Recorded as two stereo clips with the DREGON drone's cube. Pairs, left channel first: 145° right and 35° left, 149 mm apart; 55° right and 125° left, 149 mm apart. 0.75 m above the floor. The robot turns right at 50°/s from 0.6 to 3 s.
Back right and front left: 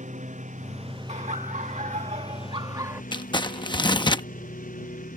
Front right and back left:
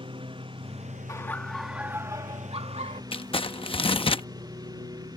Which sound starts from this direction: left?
A lawn mower, at 0.0 s.